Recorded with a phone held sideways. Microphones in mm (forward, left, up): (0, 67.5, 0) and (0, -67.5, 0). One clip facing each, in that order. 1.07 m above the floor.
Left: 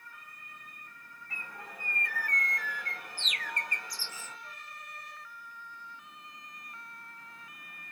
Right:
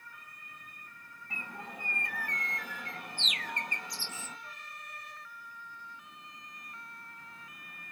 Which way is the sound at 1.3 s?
25° right (ahead or behind).